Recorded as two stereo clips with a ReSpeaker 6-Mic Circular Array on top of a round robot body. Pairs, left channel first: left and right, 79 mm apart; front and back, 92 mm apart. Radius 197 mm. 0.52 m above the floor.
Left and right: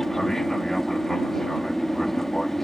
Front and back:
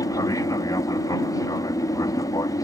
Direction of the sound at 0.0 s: 5° left.